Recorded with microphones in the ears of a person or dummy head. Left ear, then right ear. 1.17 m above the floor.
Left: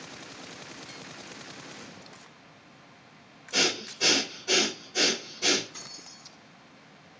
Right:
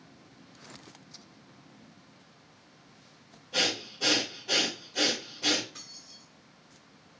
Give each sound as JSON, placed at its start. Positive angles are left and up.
{"t": 3.5, "sound": "breathing", "side_deg": 85, "distance_m": 2.0}
{"t": 5.7, "sound": "keys jangling", "side_deg": 60, "distance_m": 2.0}